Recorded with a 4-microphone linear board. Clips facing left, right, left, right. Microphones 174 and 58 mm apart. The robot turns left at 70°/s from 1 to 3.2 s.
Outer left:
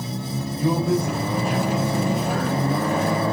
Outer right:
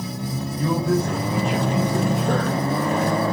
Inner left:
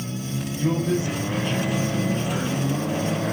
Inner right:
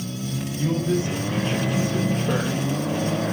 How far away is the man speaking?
About 7.5 m.